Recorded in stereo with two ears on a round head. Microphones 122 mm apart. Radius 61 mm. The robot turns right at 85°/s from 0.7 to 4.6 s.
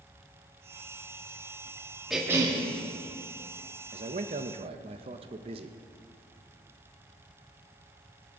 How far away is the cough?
About 1.8 m.